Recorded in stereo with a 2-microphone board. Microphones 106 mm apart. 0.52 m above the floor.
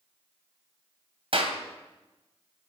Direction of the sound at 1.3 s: 60° right (ahead or behind).